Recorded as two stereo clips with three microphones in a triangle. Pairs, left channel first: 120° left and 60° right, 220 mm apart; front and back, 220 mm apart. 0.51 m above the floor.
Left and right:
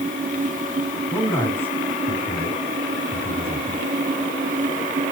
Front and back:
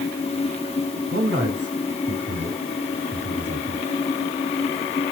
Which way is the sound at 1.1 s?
140° right.